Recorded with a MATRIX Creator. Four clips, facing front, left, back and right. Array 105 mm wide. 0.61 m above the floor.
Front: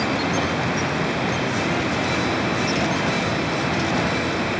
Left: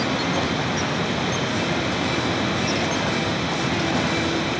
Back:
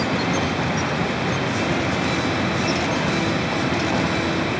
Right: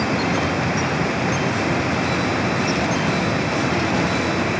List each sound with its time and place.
Only background noise.